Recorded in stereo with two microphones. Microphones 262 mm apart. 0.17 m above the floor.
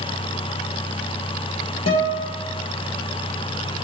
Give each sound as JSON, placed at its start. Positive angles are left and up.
{"t": 1.9, "sound": "a guitar", "side_deg": 75, "distance_m": 2.5}